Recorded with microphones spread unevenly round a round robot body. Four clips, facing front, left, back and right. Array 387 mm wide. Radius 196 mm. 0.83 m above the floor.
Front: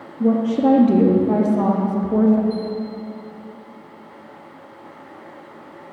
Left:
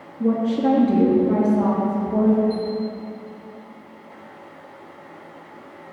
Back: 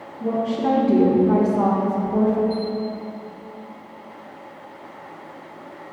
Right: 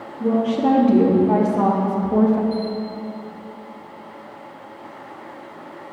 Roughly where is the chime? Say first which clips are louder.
Right 1 dB, back 1 dB; ahead left.